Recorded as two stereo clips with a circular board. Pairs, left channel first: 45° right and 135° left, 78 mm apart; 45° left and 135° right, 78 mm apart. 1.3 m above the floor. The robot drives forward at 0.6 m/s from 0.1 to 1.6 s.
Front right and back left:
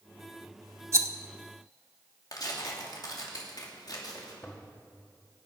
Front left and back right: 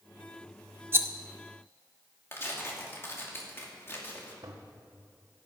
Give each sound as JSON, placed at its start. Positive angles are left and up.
{"t": 0.9, "sound": "a rattle", "azimuth_deg": 175, "distance_m": 0.8}
{"t": 2.3, "sound": "tearing paper", "azimuth_deg": -15, "distance_m": 2.5}
{"t": 4.4, "sound": "a toilet flushing", "azimuth_deg": -105, "distance_m": 1.6}